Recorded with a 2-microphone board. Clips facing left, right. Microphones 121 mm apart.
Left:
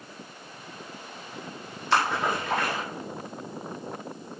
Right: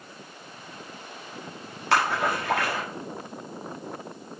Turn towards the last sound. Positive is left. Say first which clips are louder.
# right 1 dB
turn(degrees=-85)